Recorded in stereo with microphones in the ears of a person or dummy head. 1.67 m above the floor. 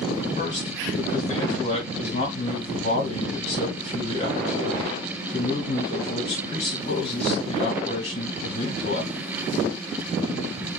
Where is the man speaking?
35° left (ahead or behind), 2 m.